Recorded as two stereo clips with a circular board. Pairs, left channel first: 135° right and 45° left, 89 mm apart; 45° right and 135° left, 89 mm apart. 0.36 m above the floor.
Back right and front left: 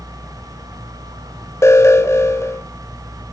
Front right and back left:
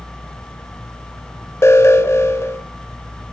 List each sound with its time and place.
1.6 s an alarm: 90° right, 0.8 m